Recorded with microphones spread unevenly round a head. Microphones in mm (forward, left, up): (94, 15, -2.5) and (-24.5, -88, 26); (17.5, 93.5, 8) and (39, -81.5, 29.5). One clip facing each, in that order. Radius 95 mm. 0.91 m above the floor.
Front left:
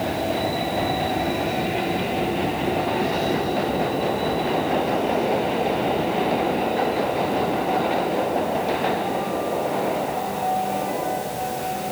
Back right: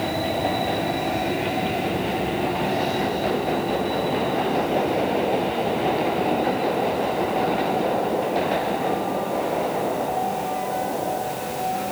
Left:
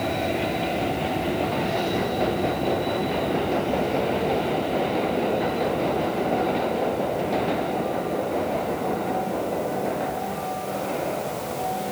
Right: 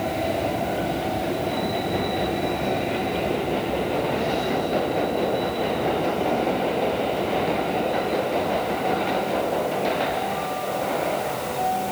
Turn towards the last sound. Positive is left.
No sound to turn to.